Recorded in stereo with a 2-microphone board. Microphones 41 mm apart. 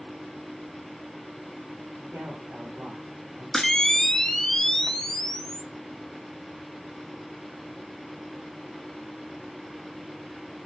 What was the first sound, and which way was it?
A man speaking, 40° right (ahead or behind).